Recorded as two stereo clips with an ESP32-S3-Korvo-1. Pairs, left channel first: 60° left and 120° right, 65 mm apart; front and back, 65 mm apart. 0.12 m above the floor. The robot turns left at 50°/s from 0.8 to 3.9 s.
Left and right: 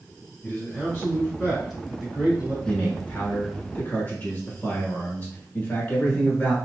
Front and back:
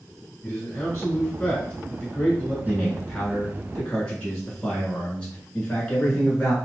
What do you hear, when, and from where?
0.4 s a man speaking: 5° left, 1.3 m; by 2.5 s 85° right, 1.3 m
2.6 s a man speaking: 120° left, 1.4 m; by 6.5 s 55° left, 1.4 m